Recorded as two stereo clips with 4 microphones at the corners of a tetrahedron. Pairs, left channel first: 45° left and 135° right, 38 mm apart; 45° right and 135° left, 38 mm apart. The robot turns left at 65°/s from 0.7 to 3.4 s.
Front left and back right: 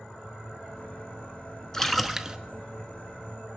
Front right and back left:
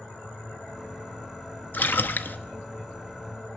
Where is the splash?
30° right, 0.8 m; by 2.4 s 70° right, 0.8 m.